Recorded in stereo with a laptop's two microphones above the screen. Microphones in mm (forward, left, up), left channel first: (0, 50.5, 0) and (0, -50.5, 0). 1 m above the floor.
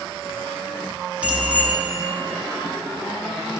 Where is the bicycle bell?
15° right (ahead or behind), 6 m.